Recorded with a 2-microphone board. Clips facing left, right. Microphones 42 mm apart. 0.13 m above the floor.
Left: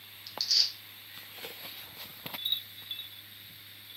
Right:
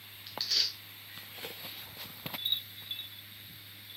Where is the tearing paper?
30° right (ahead or behind), 0.9 m.